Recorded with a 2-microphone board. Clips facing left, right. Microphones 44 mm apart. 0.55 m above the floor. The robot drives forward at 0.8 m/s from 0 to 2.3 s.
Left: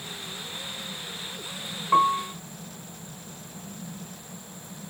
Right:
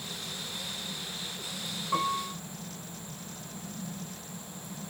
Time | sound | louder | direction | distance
1.9 | a piano | left 9 dB | 40° left (ahead or behind) | 1.0 m